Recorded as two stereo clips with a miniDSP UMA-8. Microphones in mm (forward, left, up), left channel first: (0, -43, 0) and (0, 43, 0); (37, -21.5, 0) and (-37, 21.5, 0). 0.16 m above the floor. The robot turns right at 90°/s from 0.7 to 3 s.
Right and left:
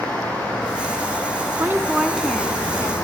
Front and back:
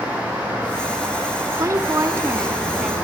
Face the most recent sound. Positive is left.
turn(degrees=-110)